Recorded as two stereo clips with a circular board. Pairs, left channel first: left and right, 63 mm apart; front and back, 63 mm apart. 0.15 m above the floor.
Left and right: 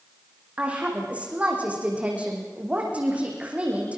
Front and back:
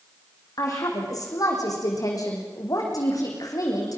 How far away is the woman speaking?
About 8 m.